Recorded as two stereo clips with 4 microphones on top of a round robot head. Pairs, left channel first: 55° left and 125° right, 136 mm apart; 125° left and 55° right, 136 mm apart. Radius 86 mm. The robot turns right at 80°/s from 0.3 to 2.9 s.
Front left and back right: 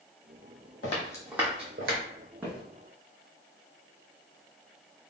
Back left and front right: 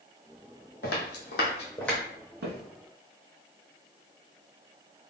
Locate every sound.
0.8 s footsteps: 90° left, 1.2 m; by 2.0 s 135° right, 1.3 m
2.4 s footsteps: 50° right, 1.0 m; by 2.6 s 30° right, 1.0 m